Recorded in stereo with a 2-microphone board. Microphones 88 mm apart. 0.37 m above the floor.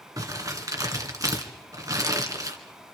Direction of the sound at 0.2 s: 40° right (ahead or behind).